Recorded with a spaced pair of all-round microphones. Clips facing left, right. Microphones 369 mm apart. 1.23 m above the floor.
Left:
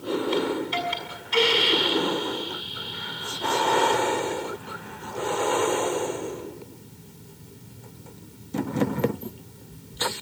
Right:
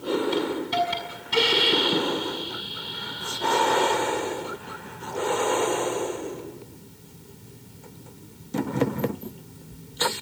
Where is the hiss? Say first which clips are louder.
Even; 55° right (ahead or behind), 6 m.